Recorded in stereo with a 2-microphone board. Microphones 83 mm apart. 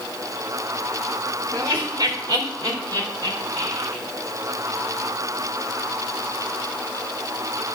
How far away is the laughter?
About 2.5 m.